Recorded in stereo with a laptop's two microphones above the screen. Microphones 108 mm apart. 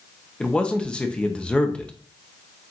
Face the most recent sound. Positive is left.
turn(degrees=10)  # may be behind; listen again after turning